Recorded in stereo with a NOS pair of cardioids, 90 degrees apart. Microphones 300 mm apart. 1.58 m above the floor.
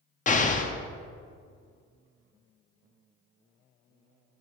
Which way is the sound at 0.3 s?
25° left.